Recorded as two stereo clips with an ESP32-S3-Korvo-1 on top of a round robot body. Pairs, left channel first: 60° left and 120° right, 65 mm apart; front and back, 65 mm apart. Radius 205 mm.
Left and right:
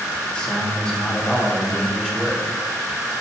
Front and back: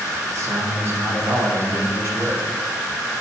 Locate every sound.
0.3 s a man speaking: 135° left, 2.5 m